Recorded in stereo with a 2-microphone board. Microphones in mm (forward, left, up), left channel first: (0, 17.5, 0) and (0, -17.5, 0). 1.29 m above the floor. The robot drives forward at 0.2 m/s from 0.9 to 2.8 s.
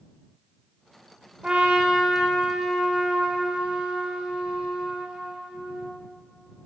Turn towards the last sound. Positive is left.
turn(degrees=-15)  # may be behind; listen again after turning